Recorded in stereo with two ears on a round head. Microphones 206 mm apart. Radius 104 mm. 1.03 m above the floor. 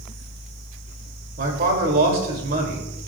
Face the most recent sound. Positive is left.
turn(degrees=-40)  # may be behind; listen again after turning